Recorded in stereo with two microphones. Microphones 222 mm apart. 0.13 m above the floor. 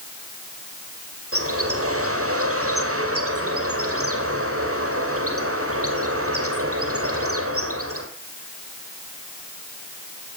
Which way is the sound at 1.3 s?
70° right (ahead or behind).